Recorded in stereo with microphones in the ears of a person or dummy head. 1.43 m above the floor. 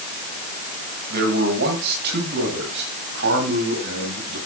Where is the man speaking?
55° right (ahead or behind), 7.5 m; by 4.4 s 70° right (ahead or behind), 10.5 m.